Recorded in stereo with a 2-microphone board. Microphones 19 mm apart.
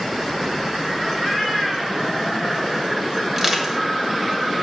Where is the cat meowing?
20° left (ahead or behind), 4 m; by 2.9 s centre (ahead or behind), 4.5 m.